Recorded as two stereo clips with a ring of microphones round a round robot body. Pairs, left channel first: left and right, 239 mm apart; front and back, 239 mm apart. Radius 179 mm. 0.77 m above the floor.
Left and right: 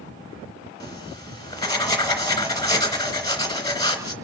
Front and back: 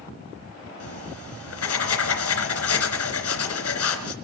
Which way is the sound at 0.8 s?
15° left.